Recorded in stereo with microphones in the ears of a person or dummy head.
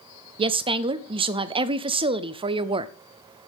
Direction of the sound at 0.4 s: 25° right (ahead or behind).